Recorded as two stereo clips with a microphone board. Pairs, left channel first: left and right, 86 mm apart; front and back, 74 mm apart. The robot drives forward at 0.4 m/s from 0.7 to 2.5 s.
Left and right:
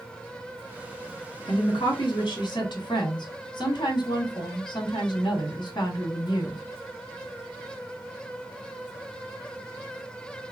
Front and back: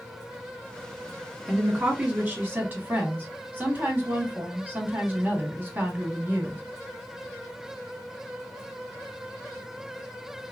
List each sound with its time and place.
1.4 s a woman speaking: 95° left, 1.4 m; by 6.6 s 115° left, 1.5 m